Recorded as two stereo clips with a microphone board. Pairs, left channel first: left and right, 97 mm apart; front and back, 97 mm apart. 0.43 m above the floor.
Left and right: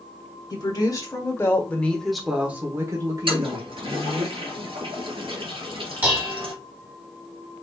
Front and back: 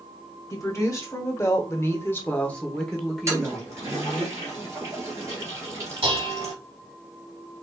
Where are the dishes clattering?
160° right, 1.8 m.